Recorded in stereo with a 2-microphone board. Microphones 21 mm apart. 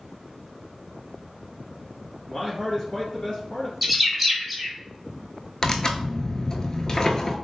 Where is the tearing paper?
35° left (ahead or behind), 0.5 m.